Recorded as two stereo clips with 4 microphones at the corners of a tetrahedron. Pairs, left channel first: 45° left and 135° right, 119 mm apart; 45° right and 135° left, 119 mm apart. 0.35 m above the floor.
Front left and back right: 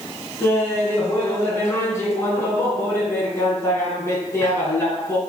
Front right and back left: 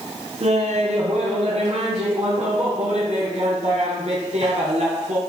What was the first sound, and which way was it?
Laughter, 110° left.